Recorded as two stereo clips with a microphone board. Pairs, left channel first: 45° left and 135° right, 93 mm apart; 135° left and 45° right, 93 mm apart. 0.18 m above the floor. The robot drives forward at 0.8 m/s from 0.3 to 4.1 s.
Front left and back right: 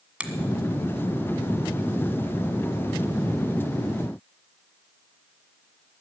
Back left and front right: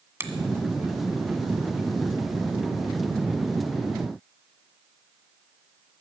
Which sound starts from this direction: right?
A finger snap, at 0.2 s.